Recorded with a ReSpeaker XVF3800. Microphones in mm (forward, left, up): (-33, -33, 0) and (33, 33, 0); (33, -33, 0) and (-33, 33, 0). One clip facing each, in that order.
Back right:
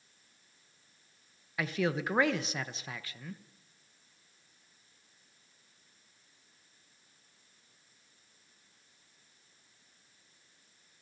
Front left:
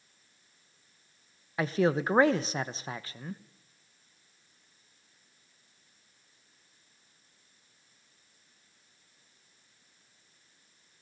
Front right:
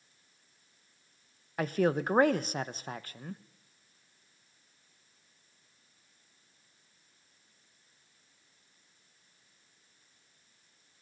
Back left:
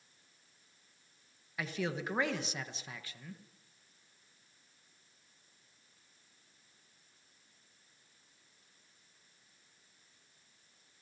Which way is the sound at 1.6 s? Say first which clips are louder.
Front left 5 dB, front right 9 dB; 10° right.